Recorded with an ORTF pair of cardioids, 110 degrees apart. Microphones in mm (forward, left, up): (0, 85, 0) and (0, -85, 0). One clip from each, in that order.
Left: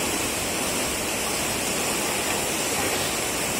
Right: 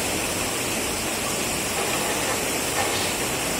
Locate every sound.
0.0 s running water: 35° right, 2 m